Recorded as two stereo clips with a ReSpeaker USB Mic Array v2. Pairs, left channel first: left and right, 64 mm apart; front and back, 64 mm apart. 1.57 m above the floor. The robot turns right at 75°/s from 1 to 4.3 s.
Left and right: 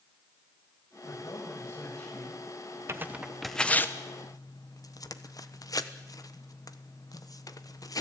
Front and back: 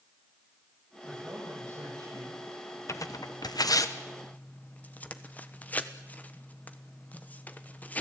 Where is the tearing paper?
40° right, 1.2 m; by 8.0 s 65° left, 1.2 m.